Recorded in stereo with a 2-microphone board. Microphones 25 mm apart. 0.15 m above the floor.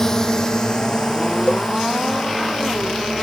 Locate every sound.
0.0 s a drone: 20° left (ahead or behind); by 3.2 s 35° left (ahead or behind)
1.5 s a cowbell: 55° left (ahead or behind)